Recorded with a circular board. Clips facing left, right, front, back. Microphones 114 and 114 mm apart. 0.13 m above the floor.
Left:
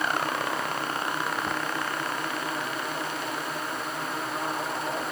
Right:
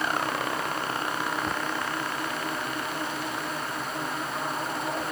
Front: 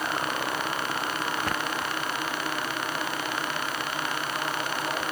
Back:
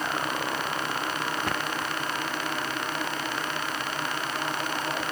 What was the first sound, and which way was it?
Only background noise.